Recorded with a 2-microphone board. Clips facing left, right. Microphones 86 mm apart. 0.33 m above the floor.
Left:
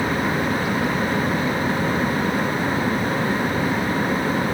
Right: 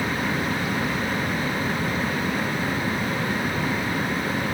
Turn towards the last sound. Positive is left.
No sound to turn to.